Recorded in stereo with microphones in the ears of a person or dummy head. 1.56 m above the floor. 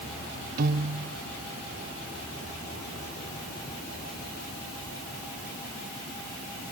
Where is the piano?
50° right (ahead or behind).